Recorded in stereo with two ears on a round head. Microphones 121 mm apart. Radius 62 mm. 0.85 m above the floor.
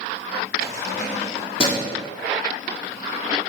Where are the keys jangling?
65° left (ahead or behind), 1.1 m; by 1.9 s 30° left (ahead or behind), 1.7 m.